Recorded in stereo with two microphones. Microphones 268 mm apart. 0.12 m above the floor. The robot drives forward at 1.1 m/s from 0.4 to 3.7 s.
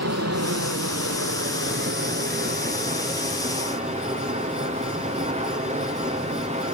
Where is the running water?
75° right (ahead or behind), 1.7 m; by 6.7 s 25° right (ahead or behind), 4 m.